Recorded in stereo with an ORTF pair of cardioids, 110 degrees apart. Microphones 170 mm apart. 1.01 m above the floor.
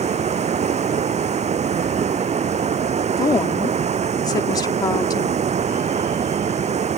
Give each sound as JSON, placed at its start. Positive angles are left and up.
{"t": 0.0, "sound": "running water", "azimuth_deg": -40}
{"t": 3.2, "sound": "a woman speaking", "azimuth_deg": 20}